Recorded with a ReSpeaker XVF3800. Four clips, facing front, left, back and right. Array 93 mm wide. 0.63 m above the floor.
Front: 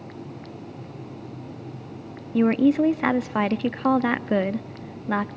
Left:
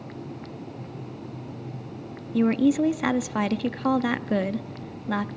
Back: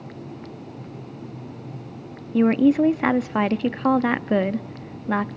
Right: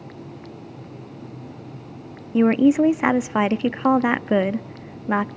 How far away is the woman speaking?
About 0.5 m.